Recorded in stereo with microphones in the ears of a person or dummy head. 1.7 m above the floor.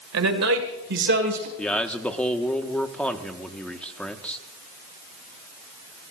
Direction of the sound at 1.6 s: 5° left (ahead or behind).